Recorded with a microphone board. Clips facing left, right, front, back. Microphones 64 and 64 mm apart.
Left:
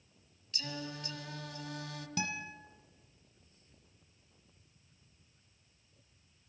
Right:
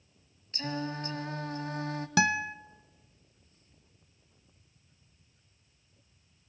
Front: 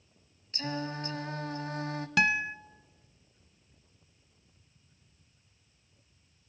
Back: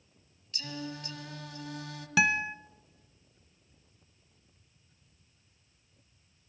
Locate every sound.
0.5 s singing: 45° right, 1.7 m
2.2 s a guitar: 95° right, 1.0 m